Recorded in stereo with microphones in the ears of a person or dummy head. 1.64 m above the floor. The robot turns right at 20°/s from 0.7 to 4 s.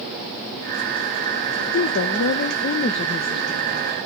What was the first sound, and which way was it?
A woman speaking, 115° left.